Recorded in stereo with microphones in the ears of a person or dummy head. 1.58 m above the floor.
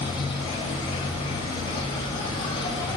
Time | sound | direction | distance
0.0 | an insect | 30° left (ahead or behind) | 2.5 m